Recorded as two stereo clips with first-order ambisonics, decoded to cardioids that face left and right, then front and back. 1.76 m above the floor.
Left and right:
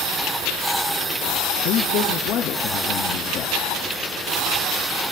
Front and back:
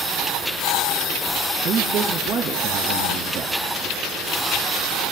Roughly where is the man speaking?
Behind left.